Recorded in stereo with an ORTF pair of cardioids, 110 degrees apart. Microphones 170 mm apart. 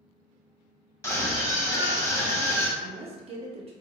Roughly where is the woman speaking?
Ahead right.